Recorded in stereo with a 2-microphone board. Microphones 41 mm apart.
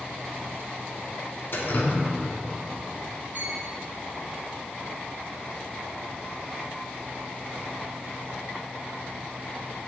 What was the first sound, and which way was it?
Dripping, 55° left (ahead or behind).